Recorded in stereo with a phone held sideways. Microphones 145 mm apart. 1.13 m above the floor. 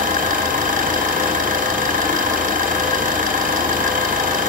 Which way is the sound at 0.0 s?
75° right (ahead or behind).